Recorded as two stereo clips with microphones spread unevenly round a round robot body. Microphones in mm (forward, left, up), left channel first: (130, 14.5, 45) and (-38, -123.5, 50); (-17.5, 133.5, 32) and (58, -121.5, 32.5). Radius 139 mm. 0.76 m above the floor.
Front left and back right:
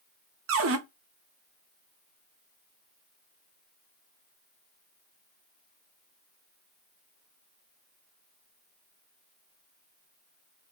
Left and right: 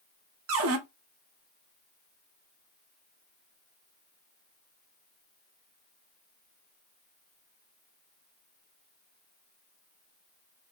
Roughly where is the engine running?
I don't hear an engine running.